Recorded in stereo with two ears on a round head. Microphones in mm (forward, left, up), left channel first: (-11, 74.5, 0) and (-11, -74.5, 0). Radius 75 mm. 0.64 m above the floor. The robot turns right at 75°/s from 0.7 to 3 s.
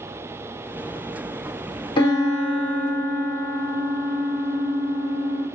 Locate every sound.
2.0 s a piano: 30° left, 2 m; by 5.5 s 110° left, 2 m